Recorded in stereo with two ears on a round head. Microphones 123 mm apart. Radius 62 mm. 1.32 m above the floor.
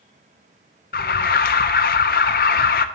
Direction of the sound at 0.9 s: 70° left (ahead or behind).